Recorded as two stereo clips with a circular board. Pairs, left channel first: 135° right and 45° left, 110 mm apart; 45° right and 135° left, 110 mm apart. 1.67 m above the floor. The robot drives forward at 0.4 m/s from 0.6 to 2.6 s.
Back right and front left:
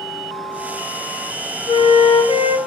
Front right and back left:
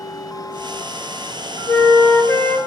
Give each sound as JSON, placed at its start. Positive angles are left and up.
{"t": 1.7, "sound": "a flute", "azimuth_deg": -100, "distance_m": 1.0}